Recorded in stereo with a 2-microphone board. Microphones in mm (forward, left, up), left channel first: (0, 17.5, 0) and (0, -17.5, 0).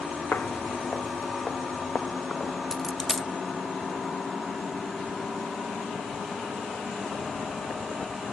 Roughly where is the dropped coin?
Centre.